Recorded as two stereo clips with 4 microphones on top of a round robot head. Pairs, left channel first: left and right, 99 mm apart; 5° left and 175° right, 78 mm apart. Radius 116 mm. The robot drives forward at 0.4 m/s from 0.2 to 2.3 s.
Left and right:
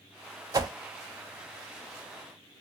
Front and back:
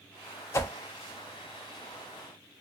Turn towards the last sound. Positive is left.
turn(degrees=-135)